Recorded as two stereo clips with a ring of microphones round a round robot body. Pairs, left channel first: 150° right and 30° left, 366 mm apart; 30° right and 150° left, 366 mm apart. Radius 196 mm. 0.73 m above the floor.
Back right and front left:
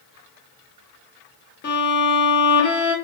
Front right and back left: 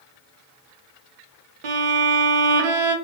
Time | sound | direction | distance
1.6 | a violin | 145° left | 0.6 m